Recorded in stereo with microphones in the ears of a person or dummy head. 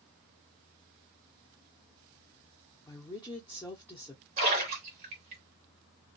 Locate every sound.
2.9 s a woman speaking: 10° left (ahead or behind), 0.7 m
4.4 s a splash: 35° right (ahead or behind), 1.4 m